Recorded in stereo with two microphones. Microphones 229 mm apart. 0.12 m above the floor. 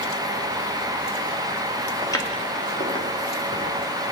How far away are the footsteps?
About 3 m.